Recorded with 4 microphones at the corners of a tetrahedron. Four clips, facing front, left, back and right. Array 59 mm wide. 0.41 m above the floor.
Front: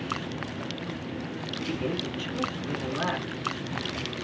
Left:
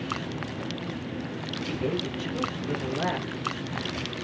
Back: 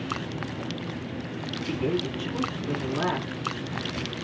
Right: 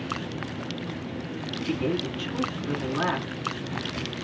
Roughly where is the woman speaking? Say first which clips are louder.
Right 3 dB, back 4 dB; right.